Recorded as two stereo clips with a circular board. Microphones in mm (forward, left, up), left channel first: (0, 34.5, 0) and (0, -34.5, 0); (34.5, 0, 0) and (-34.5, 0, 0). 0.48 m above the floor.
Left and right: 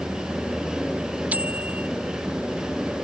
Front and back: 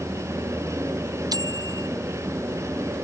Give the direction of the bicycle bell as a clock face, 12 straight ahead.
5 o'clock.